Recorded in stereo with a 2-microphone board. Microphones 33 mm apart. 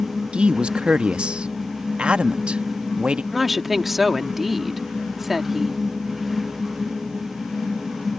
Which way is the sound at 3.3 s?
5° right (ahead or behind).